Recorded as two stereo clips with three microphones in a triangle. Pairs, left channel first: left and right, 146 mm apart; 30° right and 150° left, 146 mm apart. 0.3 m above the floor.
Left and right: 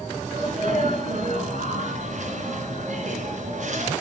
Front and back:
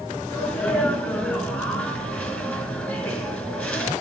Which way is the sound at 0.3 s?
110° right.